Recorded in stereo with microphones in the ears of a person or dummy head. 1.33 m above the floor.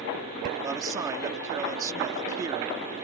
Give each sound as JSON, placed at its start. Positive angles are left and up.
{"t": 0.6, "sound": "a man speaking", "side_deg": -15}